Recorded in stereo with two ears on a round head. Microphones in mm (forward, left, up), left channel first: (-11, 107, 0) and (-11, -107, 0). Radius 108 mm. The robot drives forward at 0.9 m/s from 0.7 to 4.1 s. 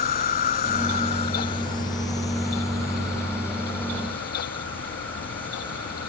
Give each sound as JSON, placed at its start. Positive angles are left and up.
{"t": 0.0, "sound": "an insect", "side_deg": 40}